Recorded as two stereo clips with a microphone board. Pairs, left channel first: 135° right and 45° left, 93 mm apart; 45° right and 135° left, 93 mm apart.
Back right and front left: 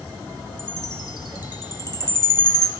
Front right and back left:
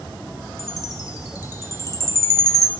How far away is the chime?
About 0.5 m.